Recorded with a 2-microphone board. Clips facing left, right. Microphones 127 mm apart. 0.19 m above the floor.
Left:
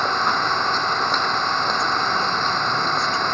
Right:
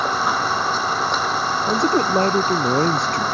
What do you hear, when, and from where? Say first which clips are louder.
0.0 s an engine running: right 1 dB; 5° right (ahead or behind)
1.7 s a man speaking: right 5 dB; 60° right (ahead or behind)